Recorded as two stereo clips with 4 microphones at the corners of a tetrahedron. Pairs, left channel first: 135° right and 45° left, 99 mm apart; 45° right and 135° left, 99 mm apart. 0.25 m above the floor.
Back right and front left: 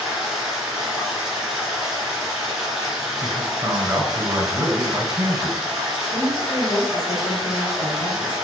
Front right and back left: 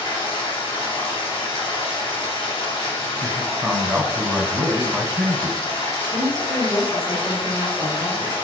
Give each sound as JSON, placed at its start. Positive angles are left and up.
{"t": 0.0, "sound": "running water", "azimuth_deg": -40, "distance_m": 2.5}
{"t": 3.2, "sound": "a man speaking", "azimuth_deg": 50, "distance_m": 1.1}
{"t": 6.1, "sound": "a woman speaking", "azimuth_deg": -85, "distance_m": 2.0}